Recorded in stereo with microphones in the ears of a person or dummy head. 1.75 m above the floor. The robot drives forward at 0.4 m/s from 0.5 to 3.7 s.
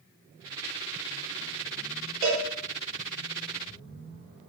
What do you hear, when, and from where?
2.2 s a cowbell: 25° right (ahead or behind), 1.1 m; by 2.4 s 20° right (ahead or behind), 1.1 m